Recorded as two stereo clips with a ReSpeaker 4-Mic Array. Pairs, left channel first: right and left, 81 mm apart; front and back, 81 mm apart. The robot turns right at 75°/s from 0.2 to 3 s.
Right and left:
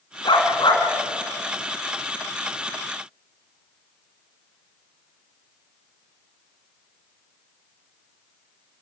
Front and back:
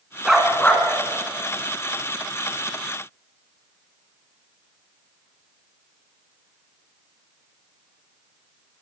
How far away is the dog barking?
About 3 m.